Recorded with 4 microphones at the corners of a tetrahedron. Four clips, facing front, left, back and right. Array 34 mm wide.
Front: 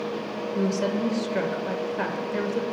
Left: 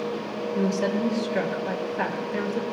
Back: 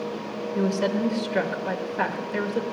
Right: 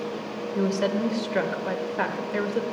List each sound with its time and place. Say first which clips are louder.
0.6 s a woman speaking: even, back 1 dB; 120° right, 1.5 m